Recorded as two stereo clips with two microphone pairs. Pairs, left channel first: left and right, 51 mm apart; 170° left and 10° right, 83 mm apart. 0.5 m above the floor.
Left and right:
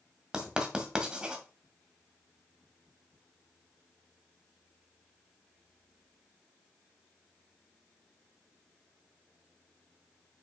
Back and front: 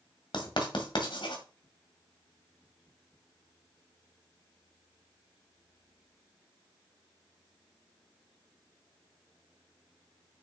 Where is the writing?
165° right, 1.6 m.